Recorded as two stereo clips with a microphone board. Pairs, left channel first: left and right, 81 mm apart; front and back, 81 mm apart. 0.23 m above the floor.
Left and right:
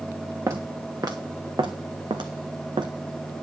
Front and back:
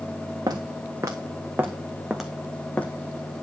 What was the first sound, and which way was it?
Footsteps, 140° right.